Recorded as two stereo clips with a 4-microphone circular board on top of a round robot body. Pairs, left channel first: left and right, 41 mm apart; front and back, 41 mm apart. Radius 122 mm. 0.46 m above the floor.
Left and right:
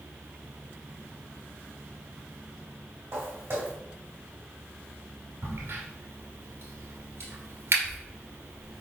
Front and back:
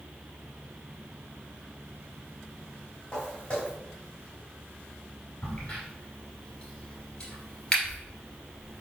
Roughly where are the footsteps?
Ahead right.